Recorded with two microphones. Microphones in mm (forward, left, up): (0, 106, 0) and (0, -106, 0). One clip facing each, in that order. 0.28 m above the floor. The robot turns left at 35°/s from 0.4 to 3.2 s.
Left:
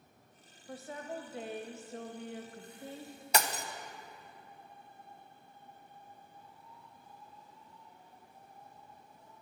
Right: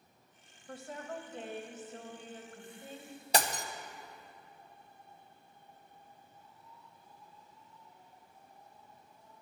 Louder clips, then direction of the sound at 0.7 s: Left 1 dB; centre (ahead or behind).